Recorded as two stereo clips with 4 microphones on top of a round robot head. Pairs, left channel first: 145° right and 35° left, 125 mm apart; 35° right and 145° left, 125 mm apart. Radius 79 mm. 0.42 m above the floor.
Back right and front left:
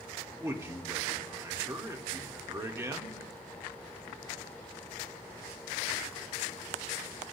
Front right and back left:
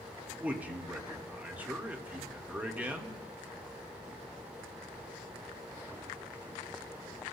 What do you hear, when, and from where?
0.4 s a man speaking: 80° left, 1.3 m